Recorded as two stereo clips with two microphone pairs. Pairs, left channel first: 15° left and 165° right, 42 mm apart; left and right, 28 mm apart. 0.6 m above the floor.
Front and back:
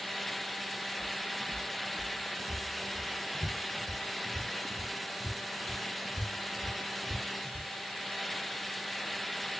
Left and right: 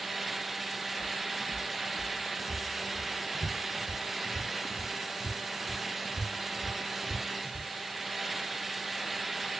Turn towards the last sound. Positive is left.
turn(degrees=-140)